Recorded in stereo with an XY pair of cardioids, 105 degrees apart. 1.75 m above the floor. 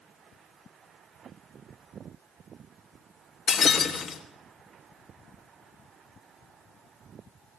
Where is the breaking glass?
50° left, 3 m.